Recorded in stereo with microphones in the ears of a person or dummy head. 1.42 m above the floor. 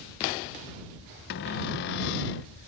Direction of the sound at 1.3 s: 65° left (ahead or behind).